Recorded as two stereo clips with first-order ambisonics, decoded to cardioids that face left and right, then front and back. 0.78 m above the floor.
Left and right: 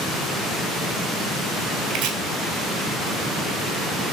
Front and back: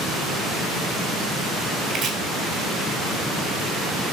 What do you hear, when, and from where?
1.9 s chopping: 120° right, 1.3 m